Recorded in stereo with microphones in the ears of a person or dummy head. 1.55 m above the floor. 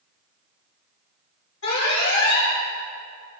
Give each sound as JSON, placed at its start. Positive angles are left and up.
{"t": 1.6, "sound": "an alarm", "side_deg": 70, "distance_m": 5.0}